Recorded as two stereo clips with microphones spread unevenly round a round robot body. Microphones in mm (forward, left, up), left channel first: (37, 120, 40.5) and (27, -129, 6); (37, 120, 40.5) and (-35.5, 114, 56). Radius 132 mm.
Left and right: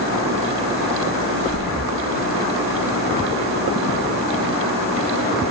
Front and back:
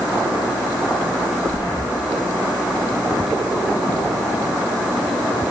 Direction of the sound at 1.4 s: 35° left.